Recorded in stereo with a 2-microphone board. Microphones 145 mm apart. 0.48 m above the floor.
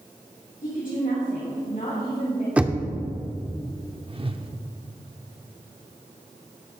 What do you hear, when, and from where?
0.6 s a woman speaking: 70° left (ahead or behind), 3.5 m
2.6 s knocking: 10° right (ahead or behind), 0.7 m
4.1 s a whoosh: 40° right (ahead or behind), 0.6 m